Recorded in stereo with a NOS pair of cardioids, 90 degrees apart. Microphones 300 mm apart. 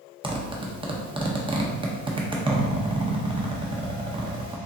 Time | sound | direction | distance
0.2 | a zipper | 15° right | 0.9 m